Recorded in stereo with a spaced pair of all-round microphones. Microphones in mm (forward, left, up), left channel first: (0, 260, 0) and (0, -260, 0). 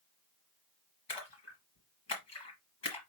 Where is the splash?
55° left (ahead or behind), 1.4 m.